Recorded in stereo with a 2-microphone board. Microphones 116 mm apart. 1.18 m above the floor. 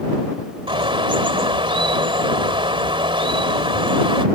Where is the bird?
50° right (ahead or behind).